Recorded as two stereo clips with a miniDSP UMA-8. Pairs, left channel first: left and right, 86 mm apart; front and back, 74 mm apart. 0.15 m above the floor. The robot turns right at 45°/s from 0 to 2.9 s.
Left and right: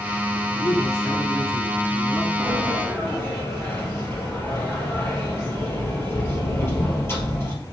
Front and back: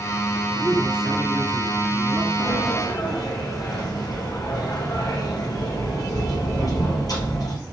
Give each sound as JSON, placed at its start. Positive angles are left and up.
{"t": 0.5, "sound": "a man speaking", "azimuth_deg": 95, "distance_m": 1.3}
{"t": 2.4, "sound": "a sliding door", "azimuth_deg": 5, "distance_m": 2.5}